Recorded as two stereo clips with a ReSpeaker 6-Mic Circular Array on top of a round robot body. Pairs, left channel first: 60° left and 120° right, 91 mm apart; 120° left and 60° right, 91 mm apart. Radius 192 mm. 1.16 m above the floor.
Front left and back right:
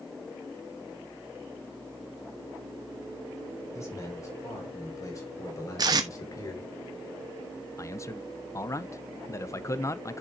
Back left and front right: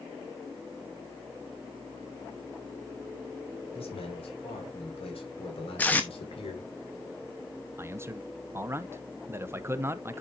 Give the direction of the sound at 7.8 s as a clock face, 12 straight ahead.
12 o'clock.